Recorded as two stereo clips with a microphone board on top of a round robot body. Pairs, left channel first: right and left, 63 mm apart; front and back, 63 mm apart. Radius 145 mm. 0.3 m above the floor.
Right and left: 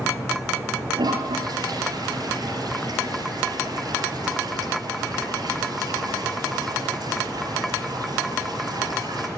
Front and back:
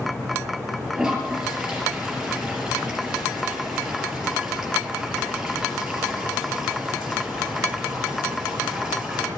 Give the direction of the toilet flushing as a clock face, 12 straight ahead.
9 o'clock.